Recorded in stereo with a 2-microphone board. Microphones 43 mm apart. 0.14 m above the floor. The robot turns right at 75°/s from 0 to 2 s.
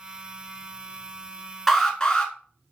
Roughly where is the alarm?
Centre.